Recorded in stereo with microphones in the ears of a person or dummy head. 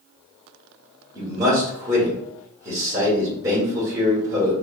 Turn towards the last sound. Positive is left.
turn(degrees=-15)  # may be behind; listen again after turning